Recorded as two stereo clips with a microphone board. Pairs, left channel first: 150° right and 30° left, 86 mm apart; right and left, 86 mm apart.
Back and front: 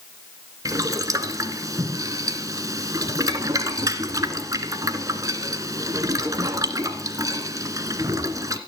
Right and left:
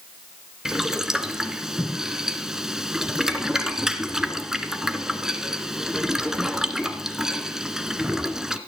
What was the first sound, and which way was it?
Boiling, 10° left.